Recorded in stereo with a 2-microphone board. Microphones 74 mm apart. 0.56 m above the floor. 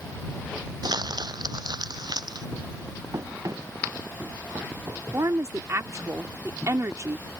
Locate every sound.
0.8 s crumpling: 70° right (ahead or behind)
3.1 s running footsteps: 45° right (ahead or behind); by 5.0 s 40° right (ahead or behind)
5.1 s a woman speaking: 40° right (ahead or behind)